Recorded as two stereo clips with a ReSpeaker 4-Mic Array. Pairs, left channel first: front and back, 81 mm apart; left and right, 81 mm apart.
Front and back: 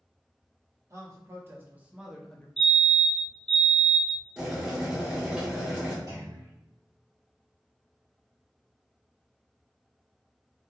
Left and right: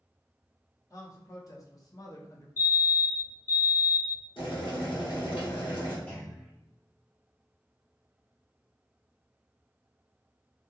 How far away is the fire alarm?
About 0.7 m.